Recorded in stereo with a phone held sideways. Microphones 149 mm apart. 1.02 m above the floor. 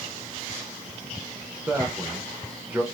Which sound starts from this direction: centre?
A man speaking, at 1.7 s.